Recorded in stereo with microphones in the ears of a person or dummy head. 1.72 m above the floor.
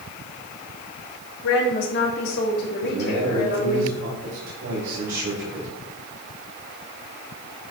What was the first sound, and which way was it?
A woman speaking, 65° left (ahead or behind).